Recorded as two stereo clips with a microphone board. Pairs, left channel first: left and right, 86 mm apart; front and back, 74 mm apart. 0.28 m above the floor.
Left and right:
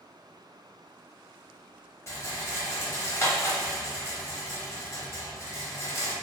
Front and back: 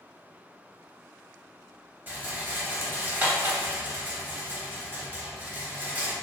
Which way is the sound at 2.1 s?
130° left.